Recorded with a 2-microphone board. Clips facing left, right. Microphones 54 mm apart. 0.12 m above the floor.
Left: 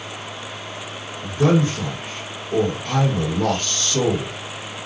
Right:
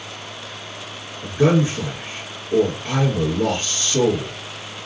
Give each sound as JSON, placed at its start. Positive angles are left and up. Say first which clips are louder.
{"t": 1.2, "sound": "a man speaking", "louder": "right 1 dB", "side_deg": -25, "distance_m": 2.5}